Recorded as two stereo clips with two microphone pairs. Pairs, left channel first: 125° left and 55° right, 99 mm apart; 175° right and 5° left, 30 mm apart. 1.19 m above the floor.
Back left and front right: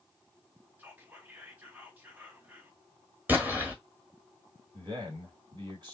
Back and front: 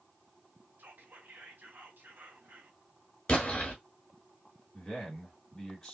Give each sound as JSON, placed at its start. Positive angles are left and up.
{"t": 0.8, "sound": "whispering", "azimuth_deg": 20, "distance_m": 1.5}
{"t": 3.3, "sound": "an explosion", "azimuth_deg": -125, "distance_m": 1.3}
{"t": 4.7, "sound": "a man speaking", "azimuth_deg": -95, "distance_m": 2.5}